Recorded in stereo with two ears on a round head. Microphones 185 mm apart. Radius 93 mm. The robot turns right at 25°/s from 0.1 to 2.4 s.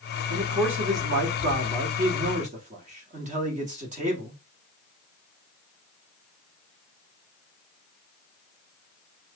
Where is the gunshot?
I don't hear a gunshot.